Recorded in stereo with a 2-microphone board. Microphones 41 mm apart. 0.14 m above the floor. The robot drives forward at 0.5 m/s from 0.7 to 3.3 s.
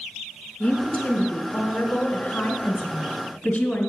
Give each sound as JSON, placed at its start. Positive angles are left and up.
{"t": 0.6, "sound": "a woman speaking", "side_deg": 25, "distance_m": 1.4}